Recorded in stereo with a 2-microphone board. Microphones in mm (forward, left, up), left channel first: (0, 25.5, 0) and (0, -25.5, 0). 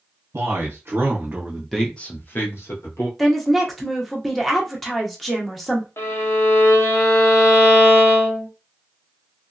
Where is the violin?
55° left (ahead or behind), 0.8 m.